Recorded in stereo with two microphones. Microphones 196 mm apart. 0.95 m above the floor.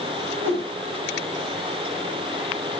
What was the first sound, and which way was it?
A whoosh, 90° right.